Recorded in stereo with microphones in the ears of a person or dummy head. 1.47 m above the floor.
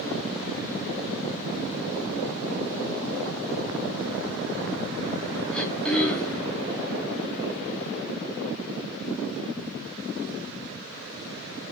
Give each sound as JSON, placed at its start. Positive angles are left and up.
{"t": 5.5, "sound": "throat clearing", "side_deg": 0, "distance_m": 0.5}